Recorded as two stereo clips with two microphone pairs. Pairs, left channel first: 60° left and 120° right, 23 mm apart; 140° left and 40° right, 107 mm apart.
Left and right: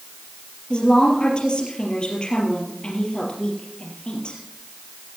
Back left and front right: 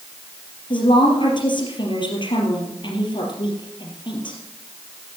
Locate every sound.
0.7 s a woman speaking: 105° left, 3.5 m